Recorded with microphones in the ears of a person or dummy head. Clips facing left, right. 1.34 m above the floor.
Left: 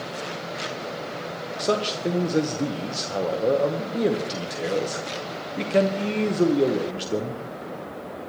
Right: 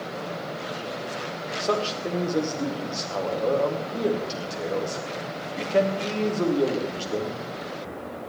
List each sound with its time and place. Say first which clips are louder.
1.6 s a man speaking: left 2 dB; 20° left (ahead or behind), 0.9 m